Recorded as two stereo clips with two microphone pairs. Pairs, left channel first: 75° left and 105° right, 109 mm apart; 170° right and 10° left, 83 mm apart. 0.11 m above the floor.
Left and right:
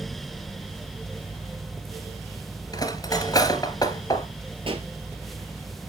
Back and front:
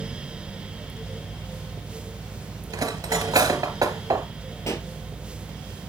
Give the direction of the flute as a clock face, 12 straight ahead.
No flute in this recording.